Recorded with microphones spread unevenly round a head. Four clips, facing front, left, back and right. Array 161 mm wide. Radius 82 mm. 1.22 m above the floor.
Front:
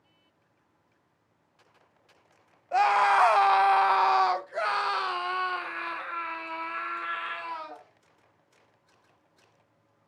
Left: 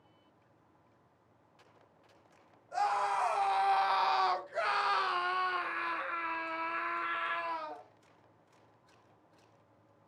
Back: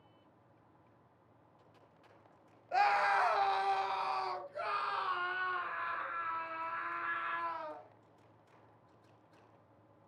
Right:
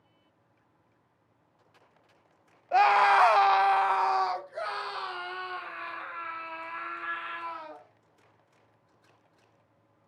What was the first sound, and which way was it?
A scream, 75° right.